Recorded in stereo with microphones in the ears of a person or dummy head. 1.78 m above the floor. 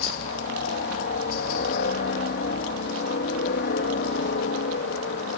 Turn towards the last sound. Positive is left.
turn(degrees=60)  # may be behind; listen again after turning